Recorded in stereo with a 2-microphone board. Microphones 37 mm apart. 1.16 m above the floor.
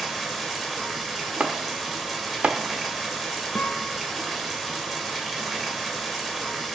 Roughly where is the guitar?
Left.